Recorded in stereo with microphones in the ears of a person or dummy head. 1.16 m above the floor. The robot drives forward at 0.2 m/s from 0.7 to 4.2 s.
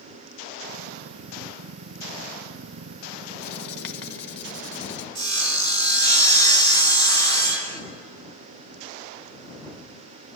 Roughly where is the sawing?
Left.